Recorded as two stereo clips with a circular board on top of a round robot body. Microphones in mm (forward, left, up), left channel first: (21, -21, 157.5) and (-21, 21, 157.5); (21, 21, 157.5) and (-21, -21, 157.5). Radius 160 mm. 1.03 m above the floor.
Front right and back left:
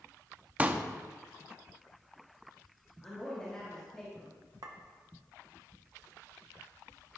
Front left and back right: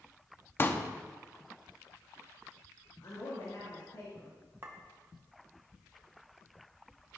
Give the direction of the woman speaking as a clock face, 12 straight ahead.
11 o'clock.